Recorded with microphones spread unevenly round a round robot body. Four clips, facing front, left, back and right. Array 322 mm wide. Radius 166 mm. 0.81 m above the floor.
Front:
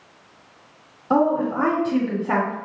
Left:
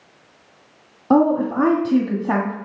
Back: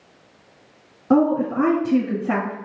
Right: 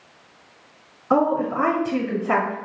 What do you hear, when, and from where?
1.1 s a woman speaking: 120° left, 1.6 m